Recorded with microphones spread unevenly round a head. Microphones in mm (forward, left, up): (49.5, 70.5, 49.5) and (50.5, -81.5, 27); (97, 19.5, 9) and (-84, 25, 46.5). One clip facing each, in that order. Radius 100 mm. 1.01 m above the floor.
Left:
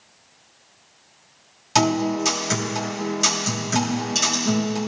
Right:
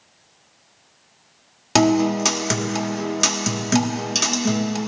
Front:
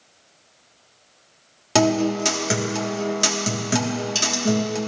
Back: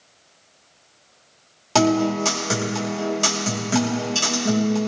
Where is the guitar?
75° right, 1.8 m.